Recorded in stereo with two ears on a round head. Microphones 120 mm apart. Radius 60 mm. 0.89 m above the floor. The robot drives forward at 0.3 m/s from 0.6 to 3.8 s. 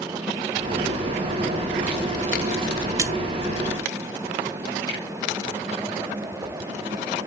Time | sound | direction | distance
3.0 | a splash | 20° right (ahead or behind) | 0.7 m
4.9 | a finger snap | 30° left (ahead or behind) | 5.5 m